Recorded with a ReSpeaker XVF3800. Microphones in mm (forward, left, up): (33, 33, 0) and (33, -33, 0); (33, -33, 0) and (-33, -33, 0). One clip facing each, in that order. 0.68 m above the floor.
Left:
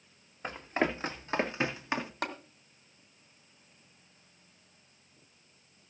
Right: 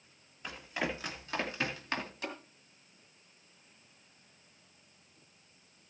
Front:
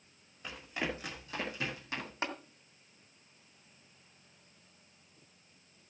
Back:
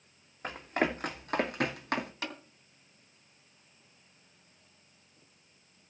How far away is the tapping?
About 2.5 m.